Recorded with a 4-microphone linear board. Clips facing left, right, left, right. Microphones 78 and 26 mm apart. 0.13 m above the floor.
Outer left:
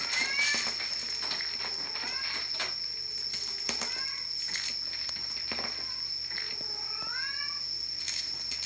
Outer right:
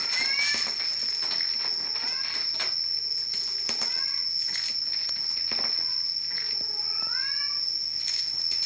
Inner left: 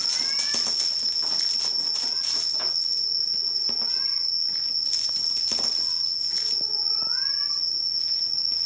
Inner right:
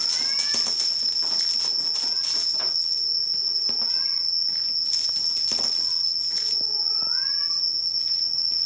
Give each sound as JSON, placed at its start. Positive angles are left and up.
{"t": 0.0, "sound": "an insect", "side_deg": -10, "distance_m": 9.0}